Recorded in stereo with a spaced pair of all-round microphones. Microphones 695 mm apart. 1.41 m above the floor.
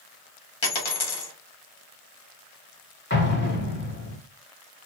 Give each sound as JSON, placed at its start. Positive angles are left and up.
{"t": 0.6, "sound": "a dropped coin", "side_deg": 45, "distance_m": 1.2}
{"t": 3.1, "sound": "an explosion", "side_deg": 15, "distance_m": 1.1}